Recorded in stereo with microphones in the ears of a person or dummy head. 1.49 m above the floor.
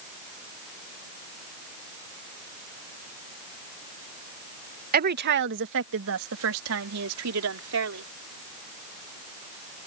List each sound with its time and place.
4.9 s a woman speaking: 45° right (ahead or behind); by 8.1 s 85° right